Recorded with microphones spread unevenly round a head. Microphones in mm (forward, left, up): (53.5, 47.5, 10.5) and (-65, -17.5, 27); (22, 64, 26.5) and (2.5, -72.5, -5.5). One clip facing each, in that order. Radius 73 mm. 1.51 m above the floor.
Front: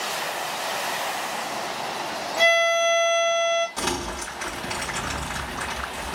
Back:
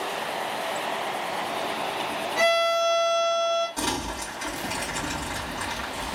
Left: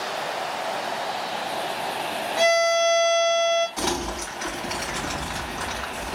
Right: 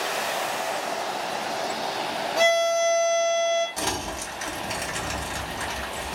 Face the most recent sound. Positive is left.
turn(degrees=-45)